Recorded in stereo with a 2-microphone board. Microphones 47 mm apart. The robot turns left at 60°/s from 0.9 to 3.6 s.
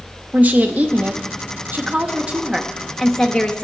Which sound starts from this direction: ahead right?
A woman speaking, at 0.3 s.